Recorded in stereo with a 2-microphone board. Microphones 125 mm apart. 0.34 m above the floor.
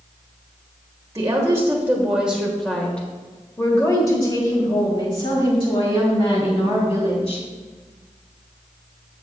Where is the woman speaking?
30° right (ahead or behind), 1.6 m; by 7.4 s 50° left (ahead or behind), 3 m.